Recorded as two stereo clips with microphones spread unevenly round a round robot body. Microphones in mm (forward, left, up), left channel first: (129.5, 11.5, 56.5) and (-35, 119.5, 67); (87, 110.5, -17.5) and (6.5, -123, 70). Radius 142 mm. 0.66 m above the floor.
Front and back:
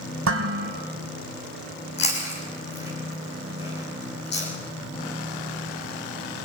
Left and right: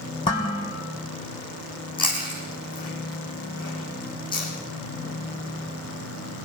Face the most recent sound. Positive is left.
turn(degrees=0)